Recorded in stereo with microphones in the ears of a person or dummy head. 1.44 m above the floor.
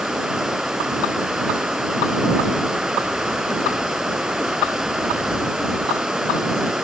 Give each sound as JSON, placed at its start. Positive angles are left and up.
{"t": 0.0, "sound": "running water", "side_deg": -5}